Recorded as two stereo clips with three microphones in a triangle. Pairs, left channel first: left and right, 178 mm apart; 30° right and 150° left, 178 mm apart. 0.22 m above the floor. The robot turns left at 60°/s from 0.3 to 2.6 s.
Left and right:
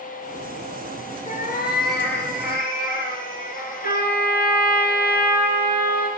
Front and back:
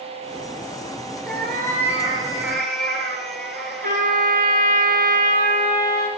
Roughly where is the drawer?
I don't hear a drawer.